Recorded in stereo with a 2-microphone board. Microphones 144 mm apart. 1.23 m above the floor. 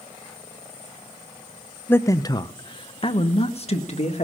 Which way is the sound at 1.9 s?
15° left (ahead or behind).